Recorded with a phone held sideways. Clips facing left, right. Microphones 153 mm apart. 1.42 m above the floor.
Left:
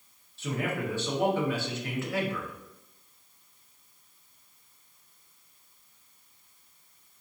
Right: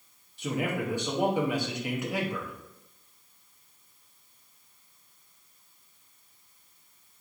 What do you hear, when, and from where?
0.4 s a man speaking: 15° right (ahead or behind), 0.8 m